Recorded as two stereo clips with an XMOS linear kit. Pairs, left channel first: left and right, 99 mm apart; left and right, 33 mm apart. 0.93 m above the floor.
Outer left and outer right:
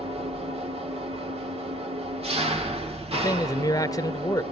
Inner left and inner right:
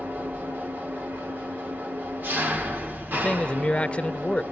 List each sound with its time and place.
0.0 s an engine running: 80° right, 2 m
3.1 s a man speaking: 40° left (ahead or behind), 0.9 m